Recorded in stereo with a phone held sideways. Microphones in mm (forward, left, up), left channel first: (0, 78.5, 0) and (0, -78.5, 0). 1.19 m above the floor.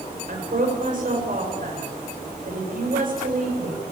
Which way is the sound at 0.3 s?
60° right (ahead or behind).